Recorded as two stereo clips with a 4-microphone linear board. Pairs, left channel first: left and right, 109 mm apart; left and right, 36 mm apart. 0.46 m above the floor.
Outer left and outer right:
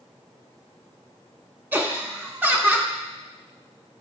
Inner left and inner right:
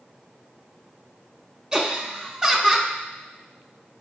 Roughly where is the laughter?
Centre.